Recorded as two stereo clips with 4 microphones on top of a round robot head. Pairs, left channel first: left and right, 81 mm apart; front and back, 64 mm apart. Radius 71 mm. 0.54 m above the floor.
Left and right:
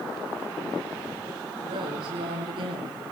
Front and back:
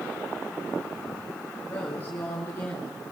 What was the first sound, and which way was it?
A woman speaking, 70° right.